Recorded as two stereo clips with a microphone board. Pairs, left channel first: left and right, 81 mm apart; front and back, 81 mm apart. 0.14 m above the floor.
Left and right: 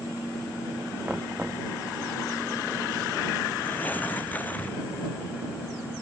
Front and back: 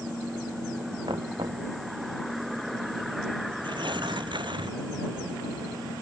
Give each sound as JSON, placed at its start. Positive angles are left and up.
{"t": 1.1, "sound": "knocking", "azimuth_deg": -160}
{"t": 3.6, "sound": "tearing paper", "azimuth_deg": 160}